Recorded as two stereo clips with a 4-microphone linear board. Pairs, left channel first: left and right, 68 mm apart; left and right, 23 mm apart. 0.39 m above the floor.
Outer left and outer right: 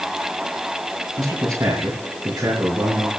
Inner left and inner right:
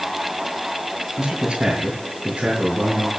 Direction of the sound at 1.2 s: 55° right (ahead or behind).